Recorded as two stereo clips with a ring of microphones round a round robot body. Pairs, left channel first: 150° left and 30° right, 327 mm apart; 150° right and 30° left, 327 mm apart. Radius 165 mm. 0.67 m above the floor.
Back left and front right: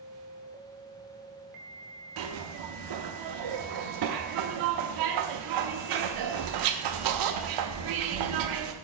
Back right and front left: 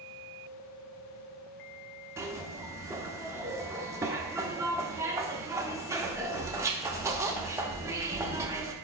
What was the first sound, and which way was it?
A zipper, 50° right.